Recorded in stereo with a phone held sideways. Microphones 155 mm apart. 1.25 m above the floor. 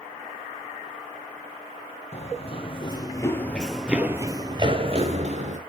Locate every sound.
2.1 s running footsteps: 45° left (ahead or behind), 1.9 m; by 5.6 s 50° right (ahead or behind), 2.0 m